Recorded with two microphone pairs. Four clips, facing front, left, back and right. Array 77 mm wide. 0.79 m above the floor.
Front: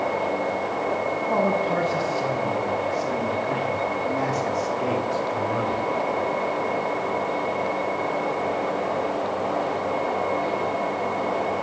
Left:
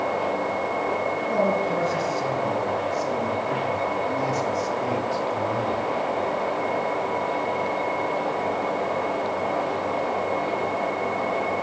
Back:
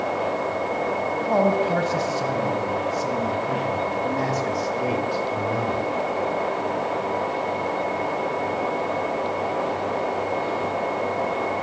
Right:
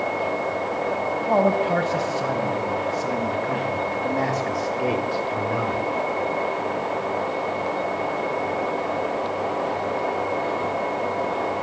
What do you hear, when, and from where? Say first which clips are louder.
1.3 s a man speaking: right 4 dB, back 3 dB; 120° right, 5.5 m; by 5.9 s 75° right, 3.5 m